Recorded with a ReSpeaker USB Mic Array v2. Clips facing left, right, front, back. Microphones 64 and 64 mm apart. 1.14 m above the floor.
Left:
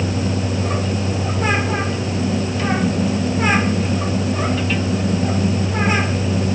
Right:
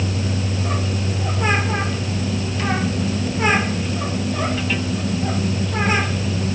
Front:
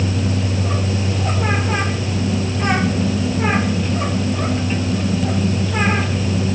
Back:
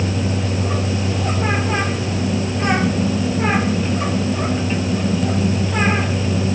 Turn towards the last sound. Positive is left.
No sound to turn to.